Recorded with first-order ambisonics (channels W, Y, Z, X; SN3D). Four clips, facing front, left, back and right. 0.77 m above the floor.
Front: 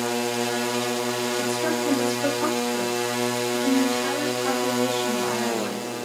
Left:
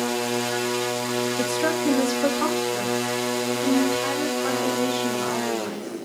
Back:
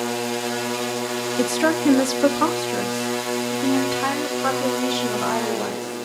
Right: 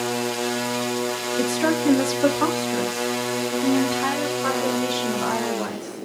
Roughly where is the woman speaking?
Behind.